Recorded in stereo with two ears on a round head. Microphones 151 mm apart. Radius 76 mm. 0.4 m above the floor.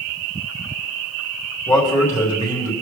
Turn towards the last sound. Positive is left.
turn(degrees=10)  # may be behind; listen again after turning